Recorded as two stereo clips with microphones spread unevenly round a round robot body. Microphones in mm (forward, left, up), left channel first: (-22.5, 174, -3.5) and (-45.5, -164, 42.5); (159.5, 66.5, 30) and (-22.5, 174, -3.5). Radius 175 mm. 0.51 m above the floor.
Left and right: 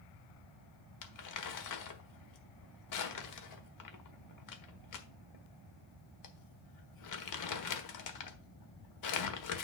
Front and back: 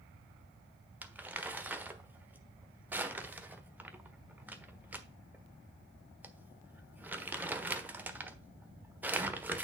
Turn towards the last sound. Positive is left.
turn(degrees=70)